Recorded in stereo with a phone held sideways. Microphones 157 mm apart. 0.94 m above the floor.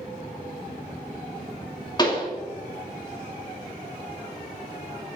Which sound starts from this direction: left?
A pop, at 2.0 s.